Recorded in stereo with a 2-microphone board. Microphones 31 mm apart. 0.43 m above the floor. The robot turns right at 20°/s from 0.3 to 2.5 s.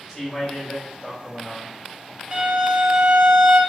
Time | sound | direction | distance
0.1 | a man speaking | 10° left (ahead or behind) | 1.7 m
2.3 | a violin | 25° right (ahead or behind) | 0.5 m